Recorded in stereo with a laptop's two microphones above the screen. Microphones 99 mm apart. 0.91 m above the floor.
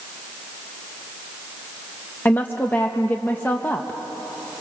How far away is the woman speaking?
About 0.7 m.